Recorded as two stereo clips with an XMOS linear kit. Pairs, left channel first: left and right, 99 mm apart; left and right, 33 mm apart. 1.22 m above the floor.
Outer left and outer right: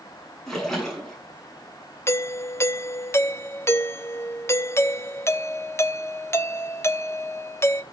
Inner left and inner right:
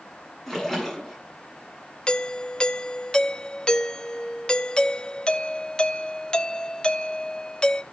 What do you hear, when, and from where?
0.5 s a splash: 5° left (ahead or behind), 9 m
2.1 s a doorbell: 30° left (ahead or behind), 0.9 m